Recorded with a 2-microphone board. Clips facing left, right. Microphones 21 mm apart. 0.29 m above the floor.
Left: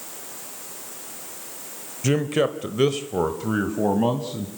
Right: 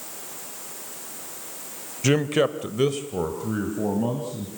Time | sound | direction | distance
2.0 | a man speaking | 20° right (ahead or behind) | 1.1 m